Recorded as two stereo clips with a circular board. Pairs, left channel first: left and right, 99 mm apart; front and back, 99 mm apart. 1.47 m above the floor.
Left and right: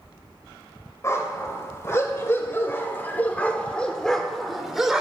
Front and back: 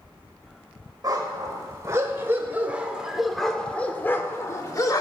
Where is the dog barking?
140° left, 1.9 m; by 5.0 s 10° right, 1.4 m.